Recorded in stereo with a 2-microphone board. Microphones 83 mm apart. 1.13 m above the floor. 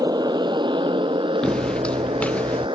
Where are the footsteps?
10° left (ahead or behind); by 2.7 s 15° left (ahead or behind).